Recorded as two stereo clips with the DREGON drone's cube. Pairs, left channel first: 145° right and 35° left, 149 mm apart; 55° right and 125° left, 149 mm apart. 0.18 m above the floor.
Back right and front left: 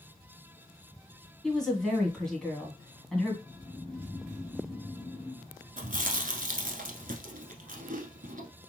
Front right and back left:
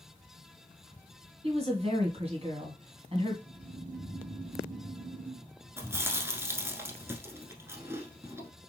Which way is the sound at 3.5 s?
130° left.